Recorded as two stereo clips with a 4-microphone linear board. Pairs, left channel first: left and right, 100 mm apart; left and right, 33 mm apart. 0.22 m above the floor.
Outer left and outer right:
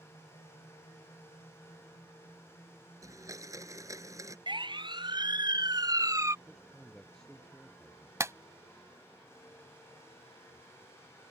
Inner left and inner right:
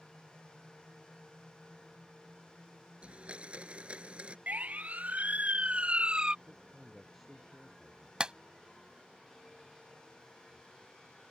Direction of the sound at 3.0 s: 35° right (ahead or behind).